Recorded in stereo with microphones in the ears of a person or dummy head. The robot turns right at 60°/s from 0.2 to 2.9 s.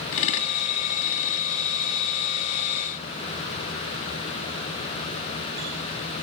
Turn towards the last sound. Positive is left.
No sound to turn to.